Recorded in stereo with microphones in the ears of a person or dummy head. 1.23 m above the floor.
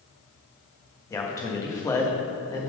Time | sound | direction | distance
1.1 | a man speaking | 15° left (ahead or behind) | 1.5 m